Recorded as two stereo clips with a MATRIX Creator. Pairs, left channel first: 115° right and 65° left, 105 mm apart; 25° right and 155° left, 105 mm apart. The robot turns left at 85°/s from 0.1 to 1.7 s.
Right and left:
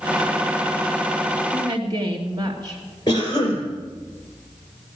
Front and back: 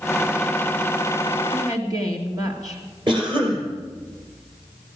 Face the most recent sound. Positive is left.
turn(degrees=-160)